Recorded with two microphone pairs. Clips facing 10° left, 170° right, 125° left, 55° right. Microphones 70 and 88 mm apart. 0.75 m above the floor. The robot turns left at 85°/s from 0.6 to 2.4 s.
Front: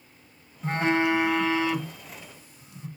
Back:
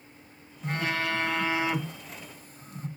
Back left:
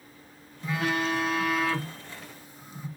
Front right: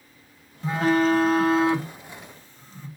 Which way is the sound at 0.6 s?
10° right.